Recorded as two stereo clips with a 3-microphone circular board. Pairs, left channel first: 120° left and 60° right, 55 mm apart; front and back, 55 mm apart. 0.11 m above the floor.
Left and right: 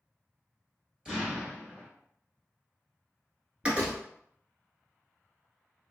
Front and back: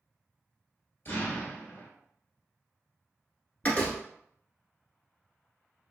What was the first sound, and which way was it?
An explosion, 10° left.